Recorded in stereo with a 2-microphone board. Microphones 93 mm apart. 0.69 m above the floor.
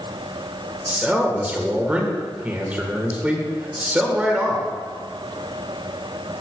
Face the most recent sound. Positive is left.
turn(degrees=-15)  # may be behind; listen again after turning